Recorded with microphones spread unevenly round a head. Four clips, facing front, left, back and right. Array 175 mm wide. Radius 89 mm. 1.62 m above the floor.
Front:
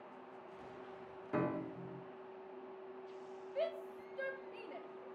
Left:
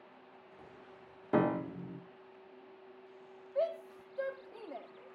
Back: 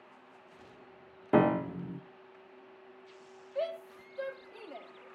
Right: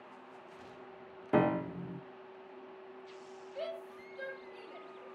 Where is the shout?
120° left, 3.5 m.